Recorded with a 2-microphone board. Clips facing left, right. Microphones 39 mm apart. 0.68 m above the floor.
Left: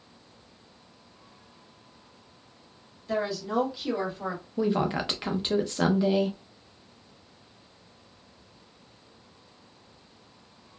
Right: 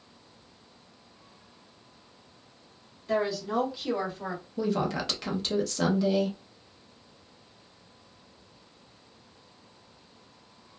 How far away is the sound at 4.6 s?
About 0.6 m.